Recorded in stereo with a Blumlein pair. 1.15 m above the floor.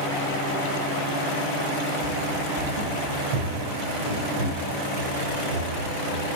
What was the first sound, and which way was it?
Running footsteps, 50° right.